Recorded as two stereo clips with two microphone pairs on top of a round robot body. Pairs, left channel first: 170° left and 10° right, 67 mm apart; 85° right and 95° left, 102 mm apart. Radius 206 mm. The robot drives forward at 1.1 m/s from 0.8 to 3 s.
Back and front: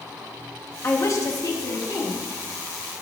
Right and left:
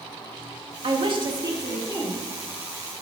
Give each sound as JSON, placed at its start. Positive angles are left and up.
{"t": 0.8, "sound": "a woman speaking", "azimuth_deg": 120, "distance_m": 1.1}